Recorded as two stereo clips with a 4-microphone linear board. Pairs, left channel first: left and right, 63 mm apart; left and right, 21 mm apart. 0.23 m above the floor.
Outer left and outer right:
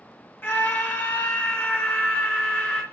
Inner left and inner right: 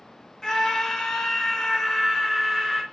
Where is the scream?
35° left (ahead or behind), 2.5 m; by 2.8 s 20° left (ahead or behind), 4 m.